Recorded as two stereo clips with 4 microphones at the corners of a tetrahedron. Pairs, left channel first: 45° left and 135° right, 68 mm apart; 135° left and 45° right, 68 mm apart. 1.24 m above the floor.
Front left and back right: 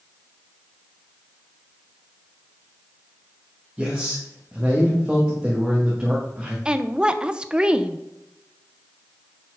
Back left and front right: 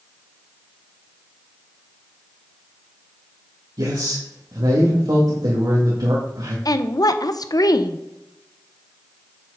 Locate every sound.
3.8 s a man speaking: 60° right, 2.5 m
6.7 s a woman speaking: 150° left, 0.8 m